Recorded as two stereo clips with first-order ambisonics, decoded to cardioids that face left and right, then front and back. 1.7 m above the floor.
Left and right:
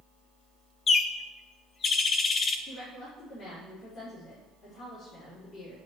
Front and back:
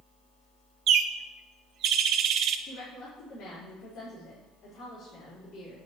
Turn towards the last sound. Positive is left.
turn(degrees=50)